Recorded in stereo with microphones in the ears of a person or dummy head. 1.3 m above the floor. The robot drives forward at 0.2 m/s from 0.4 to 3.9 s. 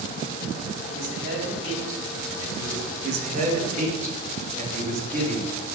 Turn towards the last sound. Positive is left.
turn(degrees=-40)  # may be behind; listen again after turning